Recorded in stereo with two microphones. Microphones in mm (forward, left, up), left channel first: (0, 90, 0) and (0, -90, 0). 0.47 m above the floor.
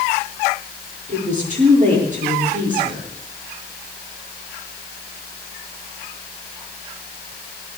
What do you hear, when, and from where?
1.1 s a woman speaking: 45° right (ahead or behind), 8 m